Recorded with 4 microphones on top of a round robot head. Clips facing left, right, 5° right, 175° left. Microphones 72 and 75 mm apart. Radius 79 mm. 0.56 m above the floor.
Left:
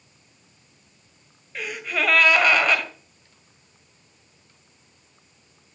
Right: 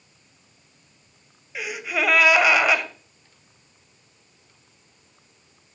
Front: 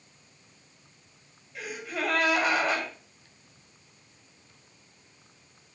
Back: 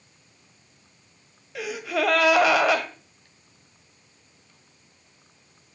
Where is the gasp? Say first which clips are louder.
Right 1 dB, back 7 dB; 170° right, 2 m.